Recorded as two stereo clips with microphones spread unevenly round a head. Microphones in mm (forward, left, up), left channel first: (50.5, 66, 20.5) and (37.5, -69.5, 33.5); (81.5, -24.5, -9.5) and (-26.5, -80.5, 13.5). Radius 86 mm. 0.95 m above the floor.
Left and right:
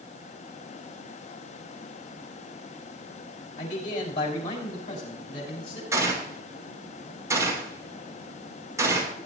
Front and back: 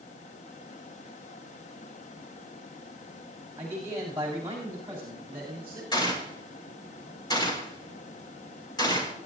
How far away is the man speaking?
About 5 m.